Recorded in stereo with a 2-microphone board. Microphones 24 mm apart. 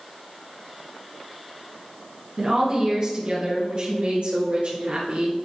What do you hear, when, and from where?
2.4 s a woman speaking: 25° right (ahead or behind), 2.5 m; by 5.4 s 65° right (ahead or behind), 4.5 m